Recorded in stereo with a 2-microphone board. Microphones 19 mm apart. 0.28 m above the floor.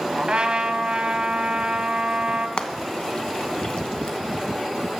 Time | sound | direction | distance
0.2 | a trumpet | 50° right (ahead or behind) | 1.2 m
2.6 | frying | 50° left (ahead or behind) | 0.9 m